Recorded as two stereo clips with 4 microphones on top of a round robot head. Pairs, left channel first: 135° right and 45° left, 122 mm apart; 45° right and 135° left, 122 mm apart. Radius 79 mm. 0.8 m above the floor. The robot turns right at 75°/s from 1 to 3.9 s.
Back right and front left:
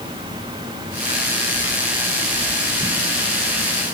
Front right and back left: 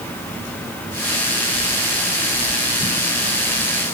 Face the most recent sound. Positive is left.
No sound to turn to.